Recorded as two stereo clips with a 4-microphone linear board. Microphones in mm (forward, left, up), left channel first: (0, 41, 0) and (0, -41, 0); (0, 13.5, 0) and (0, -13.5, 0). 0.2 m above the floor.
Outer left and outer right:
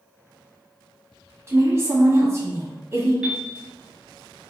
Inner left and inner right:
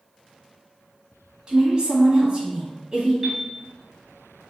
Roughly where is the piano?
Centre.